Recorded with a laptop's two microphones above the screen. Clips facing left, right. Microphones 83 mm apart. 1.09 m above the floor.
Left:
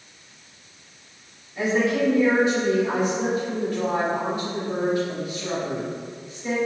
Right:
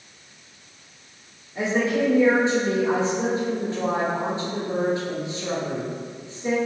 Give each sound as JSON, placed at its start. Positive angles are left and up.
{"t": 1.6, "sound": "a woman speaking", "side_deg": -25, "distance_m": 2.5}